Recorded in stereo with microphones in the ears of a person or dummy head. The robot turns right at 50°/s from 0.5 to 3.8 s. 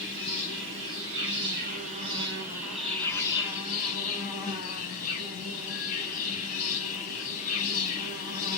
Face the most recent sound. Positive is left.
turn(degrees=55)